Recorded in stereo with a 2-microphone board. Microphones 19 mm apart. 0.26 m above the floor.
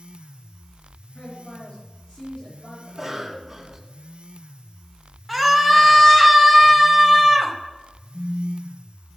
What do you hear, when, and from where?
1.1 s a man speaking: 60° left (ahead or behind), 4.5 m
2.9 s a cough: 15° right (ahead or behind), 1.9 m
5.3 s a scream: centre (ahead or behind), 1.0 m
8.1 s a phone buzzing: 55° left (ahead or behind), 1.0 m